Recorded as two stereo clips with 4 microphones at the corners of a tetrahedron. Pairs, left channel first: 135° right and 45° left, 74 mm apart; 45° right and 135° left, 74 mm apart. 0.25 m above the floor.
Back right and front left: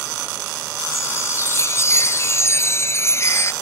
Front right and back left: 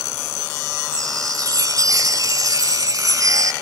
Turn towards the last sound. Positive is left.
turn(degrees=175)